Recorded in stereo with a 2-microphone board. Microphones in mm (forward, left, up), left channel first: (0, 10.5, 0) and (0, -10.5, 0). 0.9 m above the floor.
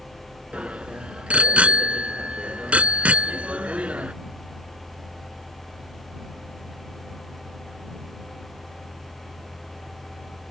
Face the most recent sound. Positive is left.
turn(degrees=-75)  # may be behind; listen again after turning